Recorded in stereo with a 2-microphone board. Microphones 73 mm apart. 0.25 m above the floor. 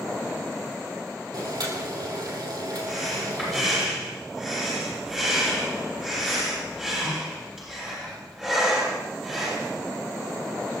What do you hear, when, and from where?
1.3 s boiling: 60° right (ahead or behind), 3.5 m
2.9 s breathing: 10° right (ahead or behind), 9.5 m